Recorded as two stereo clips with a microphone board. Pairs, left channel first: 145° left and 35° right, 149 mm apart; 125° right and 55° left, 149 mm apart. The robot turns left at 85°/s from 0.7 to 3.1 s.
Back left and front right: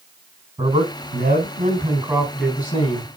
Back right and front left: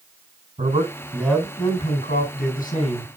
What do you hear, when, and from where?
0.6 s a man speaking: 10° left, 4 m; by 3.1 s 170° left, 4 m